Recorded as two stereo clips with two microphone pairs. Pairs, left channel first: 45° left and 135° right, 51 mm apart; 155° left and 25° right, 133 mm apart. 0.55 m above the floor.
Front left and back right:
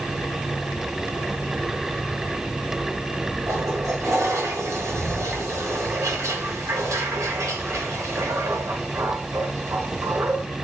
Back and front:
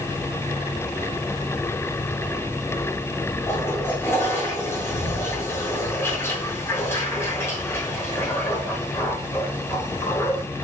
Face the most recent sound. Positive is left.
turn(degrees=-135)